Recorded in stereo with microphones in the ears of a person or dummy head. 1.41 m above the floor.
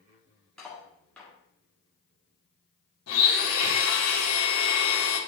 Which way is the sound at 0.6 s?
5° left (ahead or behind).